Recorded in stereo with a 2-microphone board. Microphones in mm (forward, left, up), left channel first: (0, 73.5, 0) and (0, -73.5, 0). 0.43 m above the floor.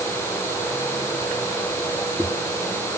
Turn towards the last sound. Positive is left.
No sound to turn to.